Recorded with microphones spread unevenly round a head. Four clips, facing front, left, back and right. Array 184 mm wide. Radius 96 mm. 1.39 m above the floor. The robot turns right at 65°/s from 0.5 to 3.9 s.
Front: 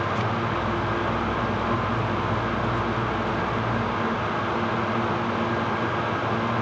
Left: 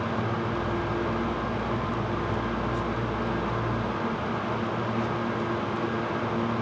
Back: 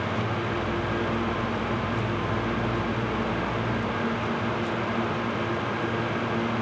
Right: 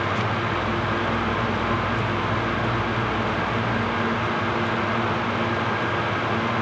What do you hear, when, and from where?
Only background noise.